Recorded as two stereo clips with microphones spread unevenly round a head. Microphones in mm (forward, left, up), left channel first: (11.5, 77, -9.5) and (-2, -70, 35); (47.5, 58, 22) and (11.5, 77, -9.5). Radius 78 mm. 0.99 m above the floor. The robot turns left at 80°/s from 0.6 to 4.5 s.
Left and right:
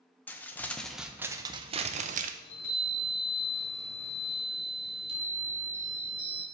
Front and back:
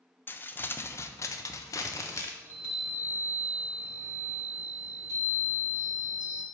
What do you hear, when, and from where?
0.3 s crumpling: 45° left, 0.6 m; by 2.3 s 90° right, 0.6 m
2.4 s a chime: 20° left, 1.8 m; by 6.4 s 150° right, 1.8 m